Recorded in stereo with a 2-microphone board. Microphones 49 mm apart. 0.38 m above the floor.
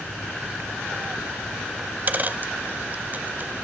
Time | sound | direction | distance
1.8 | a dropped coin | 40° right (ahead or behind) | 0.7 m